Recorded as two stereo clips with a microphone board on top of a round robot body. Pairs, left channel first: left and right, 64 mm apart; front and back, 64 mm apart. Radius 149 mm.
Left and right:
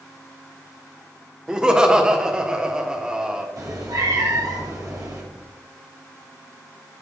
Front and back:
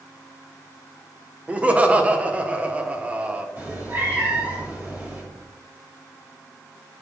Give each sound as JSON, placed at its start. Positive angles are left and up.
{"t": 1.5, "sound": "laughter", "azimuth_deg": -150, "distance_m": 1.2}
{"t": 3.6, "sound": "a cat meowing", "azimuth_deg": -120, "distance_m": 1.9}